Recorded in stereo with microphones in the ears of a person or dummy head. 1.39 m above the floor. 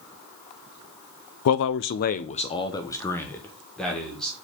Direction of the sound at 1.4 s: 75° left (ahead or behind).